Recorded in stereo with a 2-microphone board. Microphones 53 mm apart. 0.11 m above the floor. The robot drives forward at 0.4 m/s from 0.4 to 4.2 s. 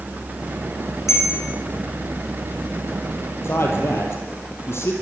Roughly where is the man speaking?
Left.